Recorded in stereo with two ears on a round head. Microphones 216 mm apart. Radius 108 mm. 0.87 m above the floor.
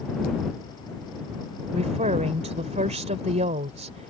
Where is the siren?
I don't hear a siren.